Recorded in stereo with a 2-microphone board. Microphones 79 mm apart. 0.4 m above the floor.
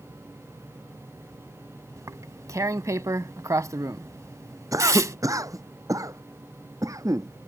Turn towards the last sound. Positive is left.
turn(degrees=-45)  # may be behind; listen again after turning